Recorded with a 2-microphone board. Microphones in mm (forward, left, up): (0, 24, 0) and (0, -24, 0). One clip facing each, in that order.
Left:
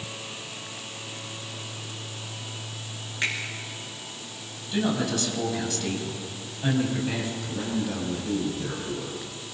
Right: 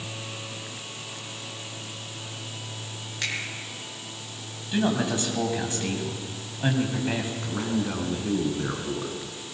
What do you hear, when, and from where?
3.2 s a finger snap: 20° left (ahead or behind), 6.5 m
4.7 s a man speaking: 25° right (ahead or behind), 4 m
7.4 s a man speaking: 45° right (ahead or behind), 5 m